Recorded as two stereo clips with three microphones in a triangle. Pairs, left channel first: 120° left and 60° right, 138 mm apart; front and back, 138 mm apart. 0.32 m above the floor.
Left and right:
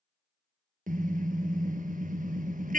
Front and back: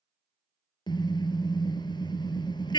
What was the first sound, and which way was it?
A car horn, 60° right.